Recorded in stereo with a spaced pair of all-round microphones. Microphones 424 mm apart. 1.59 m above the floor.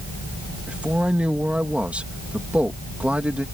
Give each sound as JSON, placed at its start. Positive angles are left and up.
{"t": 0.7, "sound": "a man speaking", "side_deg": -5}